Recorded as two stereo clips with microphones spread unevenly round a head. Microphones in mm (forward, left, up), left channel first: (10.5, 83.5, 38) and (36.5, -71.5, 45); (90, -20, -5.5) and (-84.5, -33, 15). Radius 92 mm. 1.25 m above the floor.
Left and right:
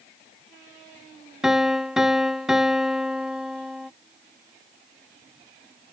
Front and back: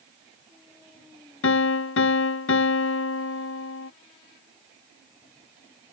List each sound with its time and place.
1.4 s a piano: 5° left